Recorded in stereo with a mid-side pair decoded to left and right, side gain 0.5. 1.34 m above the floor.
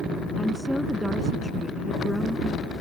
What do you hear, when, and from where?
0.4 s a woman speaking: 10° left